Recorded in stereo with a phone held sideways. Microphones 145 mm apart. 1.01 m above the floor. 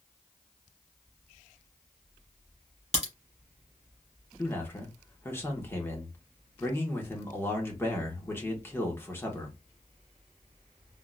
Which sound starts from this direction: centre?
A man speaking, at 4.4 s.